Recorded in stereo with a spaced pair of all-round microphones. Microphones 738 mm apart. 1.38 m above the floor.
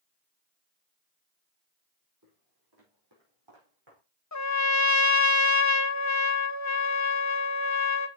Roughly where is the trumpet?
Left.